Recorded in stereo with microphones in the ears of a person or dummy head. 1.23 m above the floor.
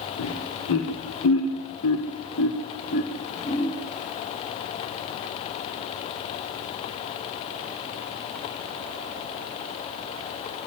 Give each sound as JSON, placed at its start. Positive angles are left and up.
{"t": 0.2, "sound": "laughter", "side_deg": 85, "distance_m": 3.5}